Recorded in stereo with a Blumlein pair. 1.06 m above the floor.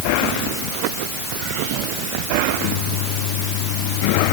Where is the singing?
No singing in this recording.